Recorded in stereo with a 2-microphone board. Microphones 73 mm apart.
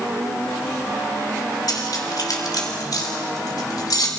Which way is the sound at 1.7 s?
65° left (ahead or behind).